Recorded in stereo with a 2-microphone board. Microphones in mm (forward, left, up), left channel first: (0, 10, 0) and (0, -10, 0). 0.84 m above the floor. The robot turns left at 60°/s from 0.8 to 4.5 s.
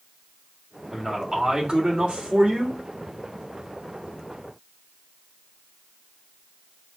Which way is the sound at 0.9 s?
Straight ahead.